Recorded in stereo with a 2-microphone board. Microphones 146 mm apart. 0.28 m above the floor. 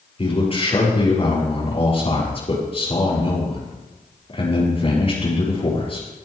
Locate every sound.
0.2 s a man speaking: 40° left (ahead or behind), 6.5 m